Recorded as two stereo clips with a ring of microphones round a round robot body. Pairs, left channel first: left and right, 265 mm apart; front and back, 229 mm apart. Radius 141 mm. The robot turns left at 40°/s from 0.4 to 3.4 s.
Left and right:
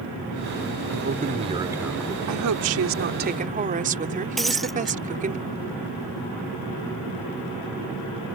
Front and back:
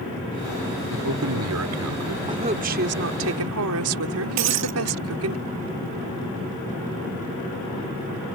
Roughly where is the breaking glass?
Behind.